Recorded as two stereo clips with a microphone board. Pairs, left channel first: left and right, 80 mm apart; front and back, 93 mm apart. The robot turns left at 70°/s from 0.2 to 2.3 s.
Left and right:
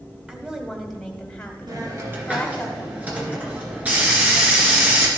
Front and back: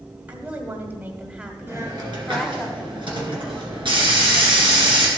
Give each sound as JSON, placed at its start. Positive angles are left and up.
{"t": 0.3, "sound": "a woman speaking", "azimuth_deg": -140, "distance_m": 1.1}
{"t": 1.7, "sound": "a hiss", "azimuth_deg": -115, "distance_m": 2.0}